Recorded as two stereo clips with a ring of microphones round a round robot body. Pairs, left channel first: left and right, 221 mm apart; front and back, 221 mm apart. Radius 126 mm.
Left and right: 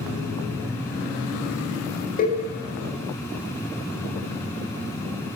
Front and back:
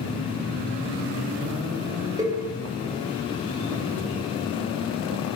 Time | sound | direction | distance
2.2 | a cowbell | 115° left | 0.5 m